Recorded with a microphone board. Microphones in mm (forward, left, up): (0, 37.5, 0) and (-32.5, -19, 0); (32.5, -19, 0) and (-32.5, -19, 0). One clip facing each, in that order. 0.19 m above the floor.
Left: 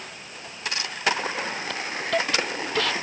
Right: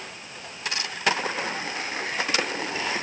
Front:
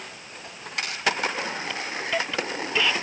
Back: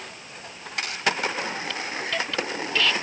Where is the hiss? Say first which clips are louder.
Left 4 dB, front 1 dB; 75° left.